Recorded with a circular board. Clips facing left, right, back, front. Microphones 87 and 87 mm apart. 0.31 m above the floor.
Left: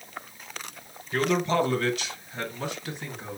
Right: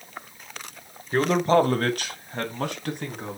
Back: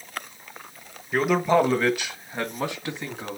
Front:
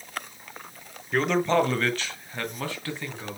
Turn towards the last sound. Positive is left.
turn(degrees=-110)